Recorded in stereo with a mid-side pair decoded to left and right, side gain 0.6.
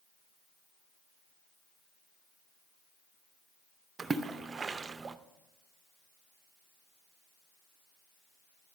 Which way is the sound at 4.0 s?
25° right.